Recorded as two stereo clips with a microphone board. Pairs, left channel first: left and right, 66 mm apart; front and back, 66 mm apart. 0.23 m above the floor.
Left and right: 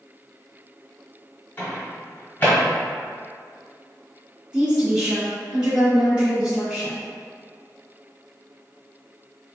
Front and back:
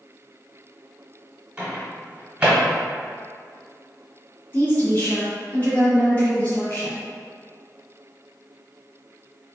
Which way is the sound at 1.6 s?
125° left.